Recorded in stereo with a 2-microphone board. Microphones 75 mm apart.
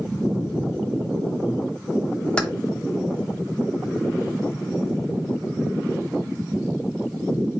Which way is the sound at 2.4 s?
10° left (ahead or behind).